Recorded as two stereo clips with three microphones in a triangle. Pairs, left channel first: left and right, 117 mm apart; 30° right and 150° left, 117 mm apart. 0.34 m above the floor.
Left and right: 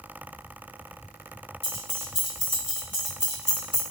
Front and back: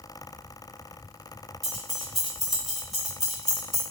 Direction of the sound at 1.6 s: 60° left.